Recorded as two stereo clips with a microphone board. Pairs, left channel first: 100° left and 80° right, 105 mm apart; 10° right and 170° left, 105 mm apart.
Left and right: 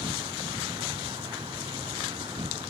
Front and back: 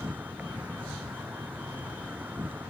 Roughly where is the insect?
Behind right.